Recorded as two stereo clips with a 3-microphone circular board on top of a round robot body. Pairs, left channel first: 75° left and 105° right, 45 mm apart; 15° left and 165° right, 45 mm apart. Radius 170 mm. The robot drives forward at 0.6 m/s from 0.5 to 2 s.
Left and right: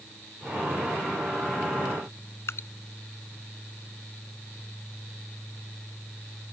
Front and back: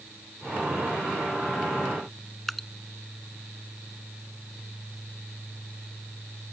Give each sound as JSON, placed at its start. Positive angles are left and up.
{"t": 2.5, "sound": "dripping", "azimuth_deg": 100}